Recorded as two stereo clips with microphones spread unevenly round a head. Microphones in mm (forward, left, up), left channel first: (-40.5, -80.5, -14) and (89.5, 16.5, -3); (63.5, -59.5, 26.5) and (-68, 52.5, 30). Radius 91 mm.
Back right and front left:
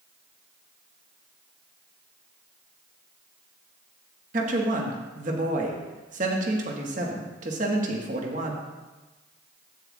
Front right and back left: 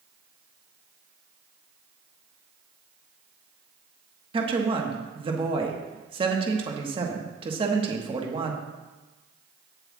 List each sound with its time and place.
4.3 s a woman speaking: 85° left, 1.3 m